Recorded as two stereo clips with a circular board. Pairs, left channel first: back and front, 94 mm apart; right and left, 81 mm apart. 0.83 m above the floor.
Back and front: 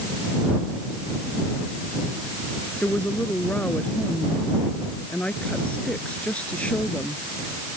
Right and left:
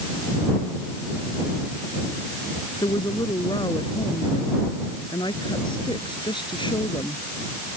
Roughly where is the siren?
I don't hear a siren.